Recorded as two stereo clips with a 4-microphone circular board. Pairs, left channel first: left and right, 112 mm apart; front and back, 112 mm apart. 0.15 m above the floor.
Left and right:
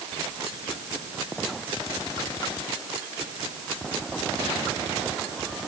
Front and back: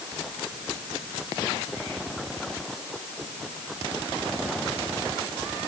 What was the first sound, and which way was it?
Only background noise.